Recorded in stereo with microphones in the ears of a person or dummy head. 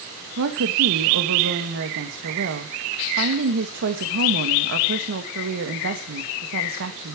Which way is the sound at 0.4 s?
65° right (ahead or behind).